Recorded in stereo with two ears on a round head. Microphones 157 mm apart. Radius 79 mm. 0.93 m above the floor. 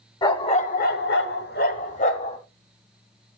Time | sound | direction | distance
0.2 | a dog barking | 25° left (ahead or behind) | 1.6 m